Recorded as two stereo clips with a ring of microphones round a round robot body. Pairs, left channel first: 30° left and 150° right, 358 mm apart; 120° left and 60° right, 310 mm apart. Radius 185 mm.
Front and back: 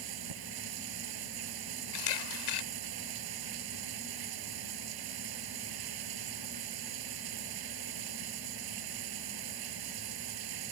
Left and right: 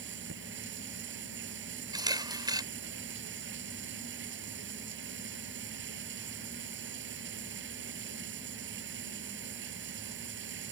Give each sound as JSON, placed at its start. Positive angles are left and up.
{"t": 0.0, "sound": "running water", "azimuth_deg": -120}
{"t": 1.9, "sound": "a camera shutter", "azimuth_deg": 15}